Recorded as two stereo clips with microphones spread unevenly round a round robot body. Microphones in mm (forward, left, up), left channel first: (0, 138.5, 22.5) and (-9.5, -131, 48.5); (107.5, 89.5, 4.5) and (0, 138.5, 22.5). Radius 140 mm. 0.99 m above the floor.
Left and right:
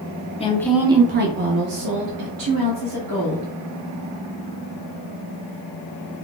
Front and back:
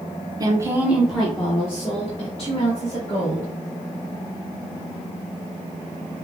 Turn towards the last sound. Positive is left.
turn(degrees=-80)